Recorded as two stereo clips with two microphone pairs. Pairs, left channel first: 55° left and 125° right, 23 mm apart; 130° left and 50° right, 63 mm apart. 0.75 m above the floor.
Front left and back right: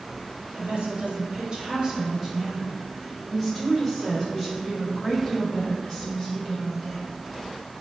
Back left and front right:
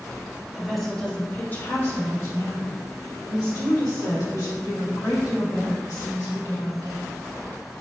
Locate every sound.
0.5 s a woman speaking: 135° right, 1.1 m; by 7.0 s 125° left, 4 m